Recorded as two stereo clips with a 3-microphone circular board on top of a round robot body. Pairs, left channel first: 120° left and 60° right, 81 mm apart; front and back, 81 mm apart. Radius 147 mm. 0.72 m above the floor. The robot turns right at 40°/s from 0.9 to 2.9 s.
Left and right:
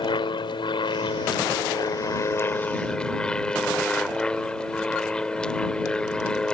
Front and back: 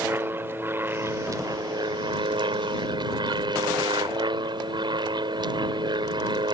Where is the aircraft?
120° left; by 6.5 s 160° right.